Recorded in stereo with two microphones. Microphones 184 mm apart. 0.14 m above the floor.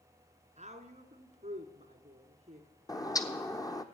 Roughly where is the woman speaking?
Right.